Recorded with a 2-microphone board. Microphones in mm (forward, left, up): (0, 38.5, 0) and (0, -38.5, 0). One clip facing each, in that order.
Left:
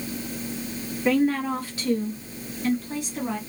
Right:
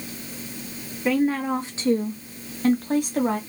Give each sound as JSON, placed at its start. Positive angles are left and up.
{"t": 1.1, "sound": "a woman speaking", "side_deg": -5, "distance_m": 0.8}